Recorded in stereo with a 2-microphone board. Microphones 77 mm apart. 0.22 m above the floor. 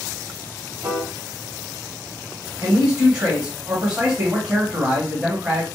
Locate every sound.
0.8 s a piano: 40° right (ahead or behind), 1.4 m
2.6 s a man speaking: 15° right (ahead or behind), 1.8 m